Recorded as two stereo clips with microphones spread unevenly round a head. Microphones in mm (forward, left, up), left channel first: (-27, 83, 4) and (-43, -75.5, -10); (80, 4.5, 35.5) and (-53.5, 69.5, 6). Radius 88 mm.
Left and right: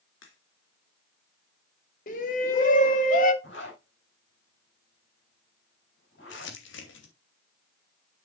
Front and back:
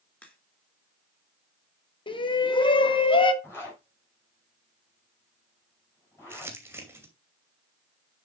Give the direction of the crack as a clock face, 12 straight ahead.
10 o'clock.